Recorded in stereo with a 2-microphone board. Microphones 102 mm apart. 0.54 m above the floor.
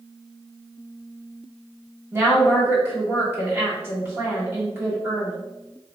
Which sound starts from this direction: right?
A woman speaking, at 2.1 s.